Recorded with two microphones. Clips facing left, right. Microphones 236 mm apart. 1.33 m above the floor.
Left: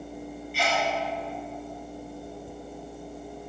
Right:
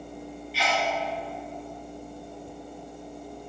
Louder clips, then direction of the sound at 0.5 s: Left 1 dB; 50° left (ahead or behind).